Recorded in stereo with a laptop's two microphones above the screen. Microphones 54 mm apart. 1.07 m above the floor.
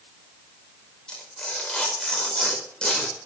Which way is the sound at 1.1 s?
15° left (ahead or behind).